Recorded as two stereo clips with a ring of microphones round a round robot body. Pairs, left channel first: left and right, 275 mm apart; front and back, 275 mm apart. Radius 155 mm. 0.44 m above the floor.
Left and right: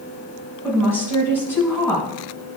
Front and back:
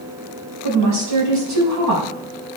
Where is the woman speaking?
170° left, 4 m.